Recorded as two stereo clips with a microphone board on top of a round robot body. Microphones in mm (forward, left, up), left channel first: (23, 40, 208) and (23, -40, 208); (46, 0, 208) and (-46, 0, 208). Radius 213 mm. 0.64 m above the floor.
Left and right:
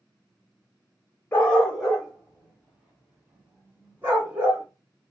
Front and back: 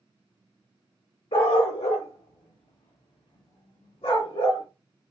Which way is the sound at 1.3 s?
20° left.